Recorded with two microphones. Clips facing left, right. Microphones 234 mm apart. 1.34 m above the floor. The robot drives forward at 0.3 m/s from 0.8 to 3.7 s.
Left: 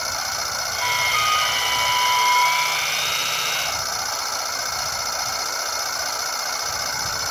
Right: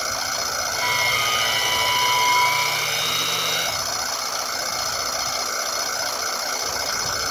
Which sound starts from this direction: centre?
A flute, at 0.8 s.